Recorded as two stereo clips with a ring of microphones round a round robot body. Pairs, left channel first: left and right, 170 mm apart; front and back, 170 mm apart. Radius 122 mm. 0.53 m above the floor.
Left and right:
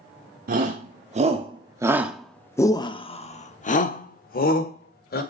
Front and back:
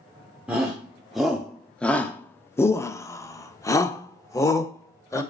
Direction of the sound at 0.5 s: 95° right.